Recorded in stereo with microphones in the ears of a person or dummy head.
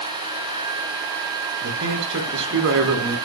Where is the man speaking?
65° right (ahead or behind), 4 m.